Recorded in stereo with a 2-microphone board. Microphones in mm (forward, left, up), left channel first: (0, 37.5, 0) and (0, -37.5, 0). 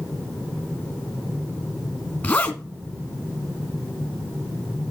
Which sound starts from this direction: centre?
A zipper, at 2.2 s.